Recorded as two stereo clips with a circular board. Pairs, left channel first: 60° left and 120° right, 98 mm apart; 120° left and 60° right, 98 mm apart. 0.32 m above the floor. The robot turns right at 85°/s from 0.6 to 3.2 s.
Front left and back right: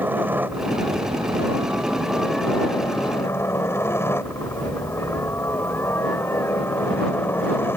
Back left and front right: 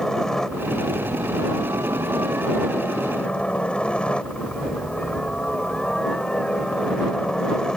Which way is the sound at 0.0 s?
160° right.